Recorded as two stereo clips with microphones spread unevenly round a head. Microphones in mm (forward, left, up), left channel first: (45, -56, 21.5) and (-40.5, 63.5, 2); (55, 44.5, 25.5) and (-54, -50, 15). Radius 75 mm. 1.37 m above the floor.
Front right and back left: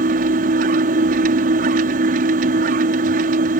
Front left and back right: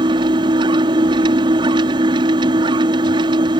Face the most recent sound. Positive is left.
turn(degrees=160)